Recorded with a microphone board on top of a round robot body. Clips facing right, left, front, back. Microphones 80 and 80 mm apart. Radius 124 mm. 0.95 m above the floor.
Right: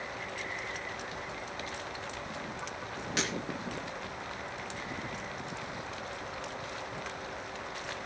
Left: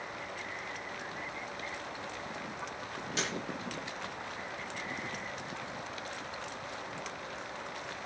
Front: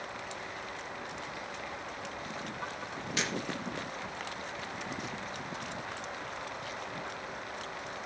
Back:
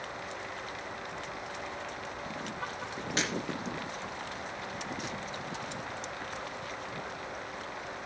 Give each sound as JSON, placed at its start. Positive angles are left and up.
{"t": 3.2, "sound": "breaking glass", "azimuth_deg": -125, "distance_m": 3.5}